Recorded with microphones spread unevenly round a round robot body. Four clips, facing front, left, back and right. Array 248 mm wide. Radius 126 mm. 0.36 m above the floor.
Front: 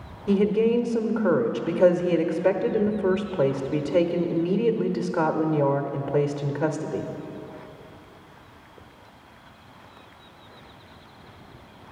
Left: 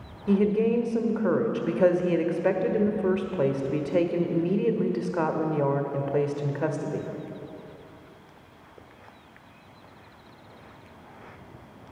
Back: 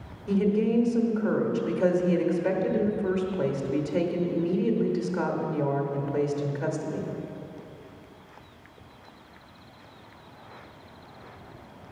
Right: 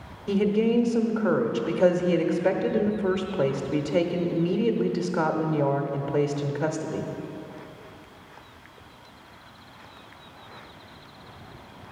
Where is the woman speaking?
15° left, 0.9 m.